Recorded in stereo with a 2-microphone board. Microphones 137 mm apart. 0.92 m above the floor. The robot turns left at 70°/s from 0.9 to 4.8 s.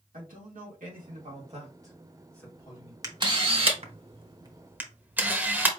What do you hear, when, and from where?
0.1 s a man speaking: 90° right, 2 m; by 2.9 s 130° left, 2 m
3.0 s a camera shutter: 25° right (ahead or behind), 1.0 m; by 5.7 s 15° right (ahead or behind), 1.0 m